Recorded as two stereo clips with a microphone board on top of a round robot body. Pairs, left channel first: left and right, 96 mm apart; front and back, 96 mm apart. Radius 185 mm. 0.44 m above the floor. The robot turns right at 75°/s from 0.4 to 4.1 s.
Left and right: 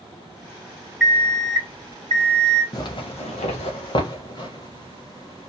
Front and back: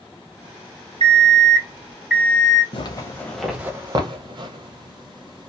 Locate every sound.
1.0 s an alarm clock: 175° right, 1.4 m; by 2.6 s 55° right, 1.4 m
2.7 s a zipper: 35° left, 0.6 m; by 5.5 s 140° left, 0.6 m